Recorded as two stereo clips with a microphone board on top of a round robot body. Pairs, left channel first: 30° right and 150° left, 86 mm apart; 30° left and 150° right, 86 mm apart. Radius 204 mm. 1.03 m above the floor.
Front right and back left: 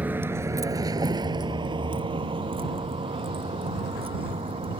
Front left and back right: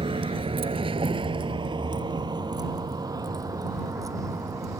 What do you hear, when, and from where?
0.0 s a vehicle: 135° right; by 4.8 s 155° left